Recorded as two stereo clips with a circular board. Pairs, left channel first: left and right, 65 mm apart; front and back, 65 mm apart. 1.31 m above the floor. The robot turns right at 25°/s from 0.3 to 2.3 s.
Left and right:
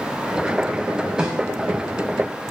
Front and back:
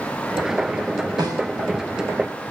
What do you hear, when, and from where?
1.2 s a snare drum: 175° right, 5 m; by 1.5 s 165° right, 5 m